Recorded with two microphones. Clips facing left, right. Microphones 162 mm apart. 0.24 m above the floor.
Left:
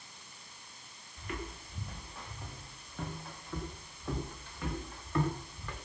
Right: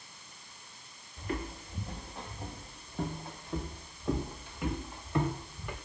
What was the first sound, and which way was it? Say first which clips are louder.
Footsteps: right 5 dB; 35° right (ahead or behind).